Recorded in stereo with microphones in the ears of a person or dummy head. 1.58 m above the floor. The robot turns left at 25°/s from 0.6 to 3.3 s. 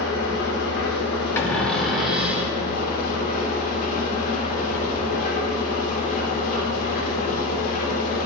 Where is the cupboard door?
15° left, 2 m; by 2.6 s 15° right, 2 m.